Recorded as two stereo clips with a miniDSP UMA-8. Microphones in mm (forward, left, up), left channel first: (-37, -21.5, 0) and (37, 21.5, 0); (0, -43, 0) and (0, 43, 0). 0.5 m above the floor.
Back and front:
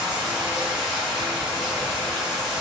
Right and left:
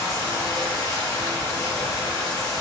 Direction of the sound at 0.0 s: 50° right.